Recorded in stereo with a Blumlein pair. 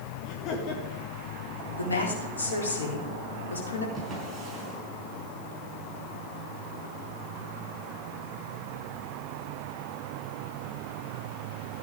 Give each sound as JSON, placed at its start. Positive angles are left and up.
{"t": 0.2, "sound": "laughter", "azimuth_deg": 35, "distance_m": 1.8}
{"t": 1.8, "sound": "a woman speaking", "azimuth_deg": 70, "distance_m": 4.0}
{"t": 4.0, "sound": "a drawer", "azimuth_deg": -15, "distance_m": 5.0}